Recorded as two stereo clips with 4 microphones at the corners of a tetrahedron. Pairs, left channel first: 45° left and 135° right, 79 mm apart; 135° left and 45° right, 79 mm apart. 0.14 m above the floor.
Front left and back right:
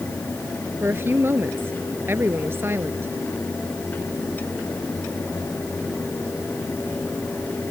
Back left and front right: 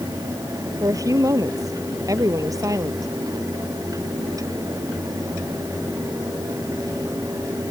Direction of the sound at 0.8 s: 80° right.